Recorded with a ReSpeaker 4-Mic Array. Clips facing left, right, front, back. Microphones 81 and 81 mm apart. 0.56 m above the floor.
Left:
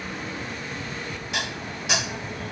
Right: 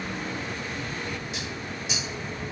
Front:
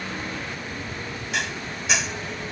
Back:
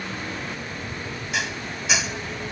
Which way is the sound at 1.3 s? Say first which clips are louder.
Left 3 dB, even; 90° left.